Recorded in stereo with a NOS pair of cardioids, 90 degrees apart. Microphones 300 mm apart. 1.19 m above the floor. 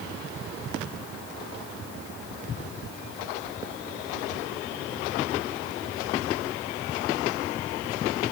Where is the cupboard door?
I don't hear a cupboard door.